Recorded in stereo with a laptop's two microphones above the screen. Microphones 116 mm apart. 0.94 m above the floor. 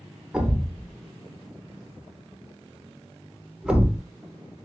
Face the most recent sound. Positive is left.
turn(degrees=-10)  # may be behind; listen again after turning